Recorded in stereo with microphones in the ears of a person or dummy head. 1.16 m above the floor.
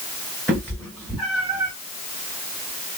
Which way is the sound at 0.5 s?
5° left (ahead or behind).